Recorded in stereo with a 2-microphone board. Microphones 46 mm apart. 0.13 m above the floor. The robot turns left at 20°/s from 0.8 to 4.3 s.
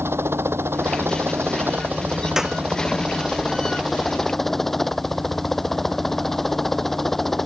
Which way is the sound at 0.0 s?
115° right.